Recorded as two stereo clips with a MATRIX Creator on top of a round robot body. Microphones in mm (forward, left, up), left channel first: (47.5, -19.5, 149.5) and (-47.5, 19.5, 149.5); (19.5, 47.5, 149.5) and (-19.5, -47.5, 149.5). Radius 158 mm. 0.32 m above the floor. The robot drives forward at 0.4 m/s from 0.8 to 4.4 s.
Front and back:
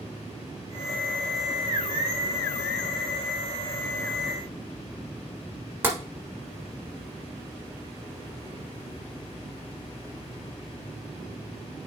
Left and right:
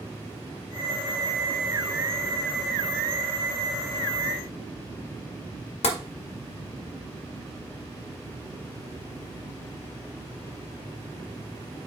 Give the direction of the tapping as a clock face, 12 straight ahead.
9 o'clock.